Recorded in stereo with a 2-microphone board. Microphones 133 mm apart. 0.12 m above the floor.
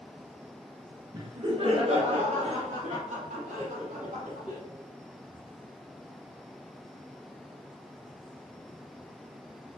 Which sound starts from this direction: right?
Laughter, at 1.1 s.